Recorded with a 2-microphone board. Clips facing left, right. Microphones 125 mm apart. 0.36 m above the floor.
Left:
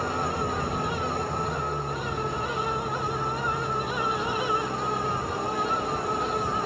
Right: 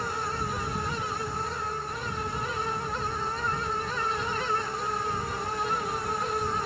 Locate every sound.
0.0 s an engine running: 55° left (ahead or behind)